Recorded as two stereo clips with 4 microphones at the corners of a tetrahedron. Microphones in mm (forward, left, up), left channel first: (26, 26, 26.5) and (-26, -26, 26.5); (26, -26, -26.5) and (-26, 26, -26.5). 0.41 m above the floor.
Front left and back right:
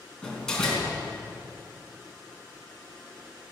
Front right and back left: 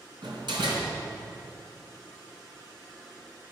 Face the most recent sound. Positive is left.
turn(degrees=125)